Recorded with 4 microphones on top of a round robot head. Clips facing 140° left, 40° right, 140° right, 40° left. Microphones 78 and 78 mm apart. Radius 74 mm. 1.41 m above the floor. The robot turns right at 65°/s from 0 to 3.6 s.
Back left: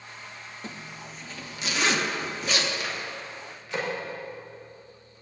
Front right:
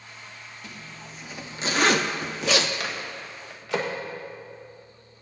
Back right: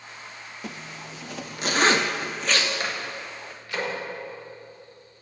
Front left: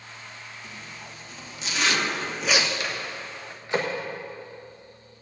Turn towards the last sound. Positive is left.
turn(degrees=-25)